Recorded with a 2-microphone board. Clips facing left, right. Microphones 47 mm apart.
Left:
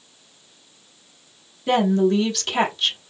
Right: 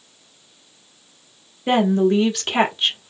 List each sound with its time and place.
1.7 s a woman speaking: 30° right (ahead or behind), 1.3 m